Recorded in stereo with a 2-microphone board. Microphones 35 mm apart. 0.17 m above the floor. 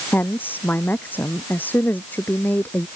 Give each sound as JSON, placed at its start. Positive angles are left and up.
{"t": 0.1, "sound": "a woman speaking", "side_deg": 65}